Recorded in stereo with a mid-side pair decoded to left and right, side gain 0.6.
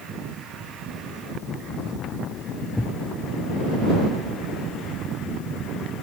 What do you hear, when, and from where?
2.8 s a thud: 10° left